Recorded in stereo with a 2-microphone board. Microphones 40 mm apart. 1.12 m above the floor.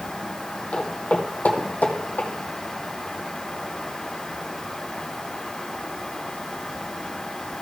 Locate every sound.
0.7 s footsteps: 30° left (ahead or behind), 2.5 m; by 2.3 s 45° left (ahead or behind), 3 m